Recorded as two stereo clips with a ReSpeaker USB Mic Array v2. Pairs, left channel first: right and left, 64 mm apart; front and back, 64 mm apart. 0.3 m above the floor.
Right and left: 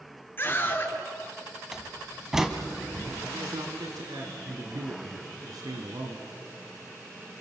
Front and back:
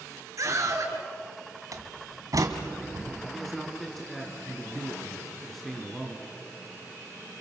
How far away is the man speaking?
About 3.5 m.